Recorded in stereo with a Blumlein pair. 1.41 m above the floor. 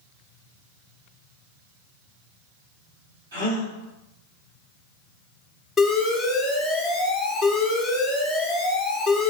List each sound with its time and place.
3.3 s a gasp: 65° right, 1.5 m
5.8 s an alarm: 5° left, 1.0 m